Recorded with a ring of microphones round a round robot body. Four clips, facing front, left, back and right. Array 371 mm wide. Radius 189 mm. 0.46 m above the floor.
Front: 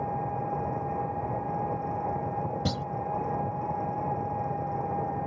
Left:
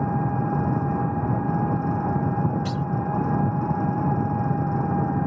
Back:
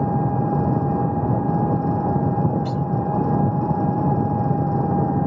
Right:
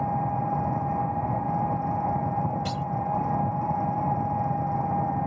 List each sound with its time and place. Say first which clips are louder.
0.0 s an engine running: left 2 dB, back 9 dB; 160° left
2.6 s a clunk: left 2 dB, back 7 dB; 15° left